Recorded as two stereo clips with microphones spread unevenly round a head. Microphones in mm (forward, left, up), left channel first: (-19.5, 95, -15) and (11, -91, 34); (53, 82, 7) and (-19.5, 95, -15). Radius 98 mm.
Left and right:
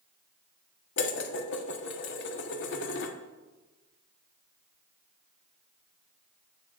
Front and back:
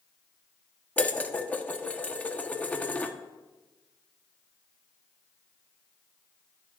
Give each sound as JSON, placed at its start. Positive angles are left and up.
{"t": 1.0, "sound": "dishes clattering", "azimuth_deg": 65, "distance_m": 1.2}